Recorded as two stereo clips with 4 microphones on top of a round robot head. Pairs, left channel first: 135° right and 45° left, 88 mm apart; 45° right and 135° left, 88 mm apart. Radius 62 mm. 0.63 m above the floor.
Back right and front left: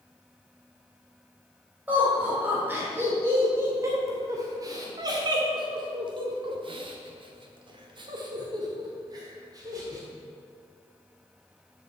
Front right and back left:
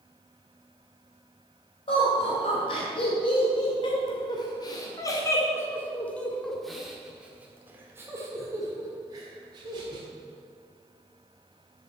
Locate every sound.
1.9 s laughter: 30° right, 3.5 m; by 10.0 s 95° left, 3 m